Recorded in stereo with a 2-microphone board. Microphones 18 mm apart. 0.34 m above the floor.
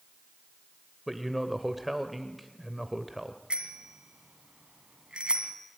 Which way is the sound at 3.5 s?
70° right (ahead or behind).